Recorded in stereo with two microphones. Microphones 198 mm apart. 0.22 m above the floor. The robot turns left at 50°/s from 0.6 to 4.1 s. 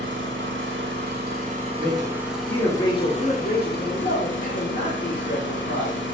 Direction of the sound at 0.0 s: 90° right.